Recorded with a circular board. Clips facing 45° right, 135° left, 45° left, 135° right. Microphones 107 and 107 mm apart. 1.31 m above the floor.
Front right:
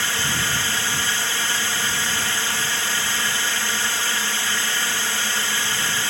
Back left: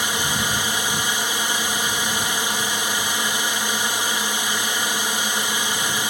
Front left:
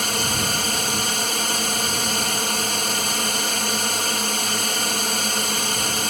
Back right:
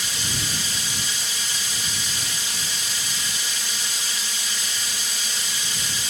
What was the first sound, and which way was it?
A drone, 65° left.